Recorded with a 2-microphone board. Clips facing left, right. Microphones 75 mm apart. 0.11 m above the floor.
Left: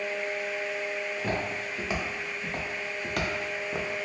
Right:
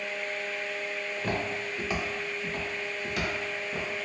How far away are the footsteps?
About 1.7 m.